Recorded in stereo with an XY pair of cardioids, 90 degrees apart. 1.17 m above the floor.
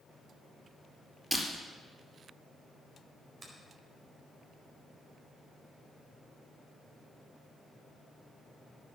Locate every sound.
1.3 s breaking glass: straight ahead, 4 m
3.4 s a finger snap: 40° right, 4.5 m